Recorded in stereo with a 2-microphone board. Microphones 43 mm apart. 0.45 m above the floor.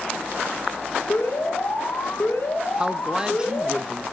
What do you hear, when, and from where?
1.1 s an alarm: 70° left (ahead or behind), 3.5 m
2.8 s a woman speaking: 20° right (ahead or behind), 0.8 m